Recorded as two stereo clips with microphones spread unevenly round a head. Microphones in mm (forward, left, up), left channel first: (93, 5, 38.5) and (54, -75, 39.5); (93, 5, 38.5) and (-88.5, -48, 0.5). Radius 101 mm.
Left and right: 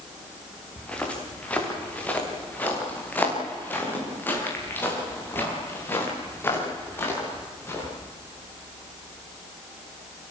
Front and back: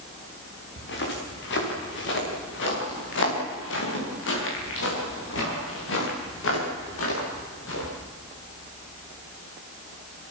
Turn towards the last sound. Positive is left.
turn(degrees=0)